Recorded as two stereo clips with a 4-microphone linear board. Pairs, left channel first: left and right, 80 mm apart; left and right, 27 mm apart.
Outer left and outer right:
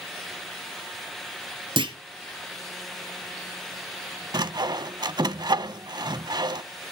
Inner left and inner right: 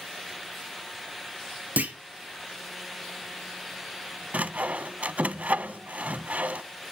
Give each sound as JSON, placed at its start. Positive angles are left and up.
{"t": 1.8, "sound": "a clunk", "side_deg": -85, "distance_m": 1.3}
{"t": 4.3, "sound": "sawing", "side_deg": -60, "distance_m": 0.5}